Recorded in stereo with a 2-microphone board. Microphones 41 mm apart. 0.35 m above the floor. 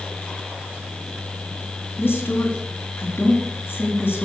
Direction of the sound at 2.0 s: 65° left (ahead or behind).